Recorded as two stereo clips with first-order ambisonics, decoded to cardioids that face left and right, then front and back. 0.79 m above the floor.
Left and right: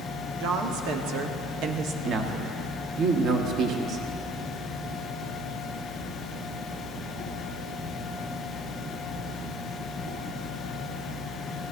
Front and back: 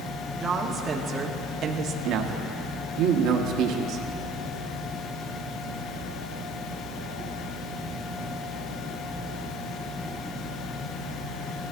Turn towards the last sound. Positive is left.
turn(degrees=-140)